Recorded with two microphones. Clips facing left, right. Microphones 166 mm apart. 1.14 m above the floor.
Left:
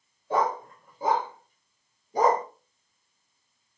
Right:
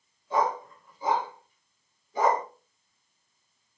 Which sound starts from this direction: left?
A dog barking, at 0.3 s.